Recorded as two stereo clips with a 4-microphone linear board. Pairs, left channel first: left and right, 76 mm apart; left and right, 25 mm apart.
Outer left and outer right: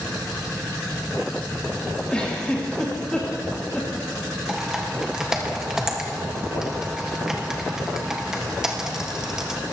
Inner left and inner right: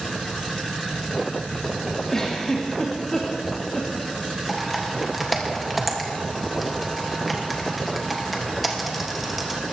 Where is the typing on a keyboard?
5° right (ahead or behind), 1.4 m.